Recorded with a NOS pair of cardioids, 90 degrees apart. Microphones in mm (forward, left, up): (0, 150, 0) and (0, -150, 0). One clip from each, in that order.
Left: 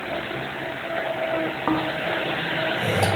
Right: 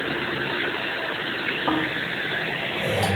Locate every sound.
1.7 s snoring: 20° left, 0.9 m